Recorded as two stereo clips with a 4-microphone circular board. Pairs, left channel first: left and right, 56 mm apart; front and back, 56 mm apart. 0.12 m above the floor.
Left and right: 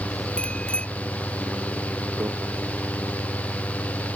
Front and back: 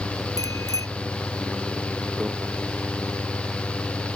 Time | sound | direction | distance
0.4 | a bicycle bell | 20° left | ?
2.2 | a microwave | 105° right | ?